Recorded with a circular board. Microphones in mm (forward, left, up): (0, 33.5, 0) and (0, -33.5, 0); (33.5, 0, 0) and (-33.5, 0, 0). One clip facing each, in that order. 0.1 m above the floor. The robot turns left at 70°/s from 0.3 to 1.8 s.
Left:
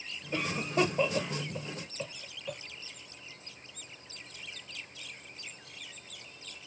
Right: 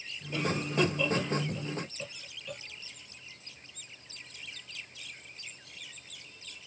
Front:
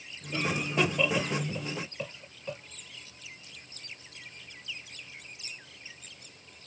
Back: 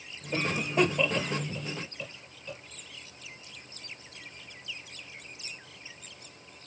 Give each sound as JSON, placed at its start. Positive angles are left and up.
{"t": 0.3, "sound": "a cough", "azimuth_deg": 135, "distance_m": 1.9}